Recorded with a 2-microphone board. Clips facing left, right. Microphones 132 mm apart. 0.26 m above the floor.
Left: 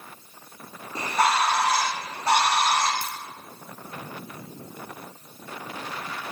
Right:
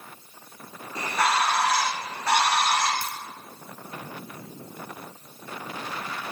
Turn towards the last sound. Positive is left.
turn(degrees=25)  # may be behind; listen again after turning